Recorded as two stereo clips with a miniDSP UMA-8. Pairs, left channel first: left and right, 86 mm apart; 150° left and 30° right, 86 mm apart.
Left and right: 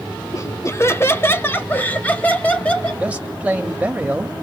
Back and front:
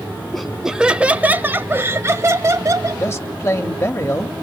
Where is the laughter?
65° left, 1.1 m; by 3.0 s 15° left, 2.0 m.